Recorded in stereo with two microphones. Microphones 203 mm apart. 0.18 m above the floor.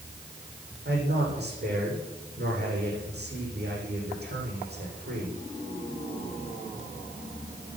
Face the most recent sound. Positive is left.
turn(degrees=-55)  # may be behind; listen again after turning